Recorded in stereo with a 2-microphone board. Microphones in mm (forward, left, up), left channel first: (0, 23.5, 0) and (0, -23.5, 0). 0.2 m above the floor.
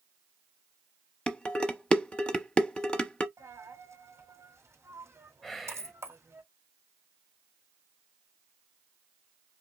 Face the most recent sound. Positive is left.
turn(degrees=10)  # may be behind; listen again after turning